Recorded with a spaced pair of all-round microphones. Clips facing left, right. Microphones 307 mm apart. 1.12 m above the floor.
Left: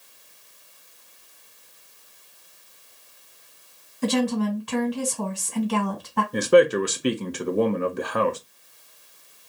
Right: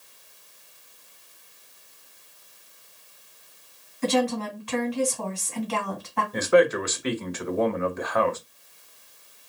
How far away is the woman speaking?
About 1.3 m.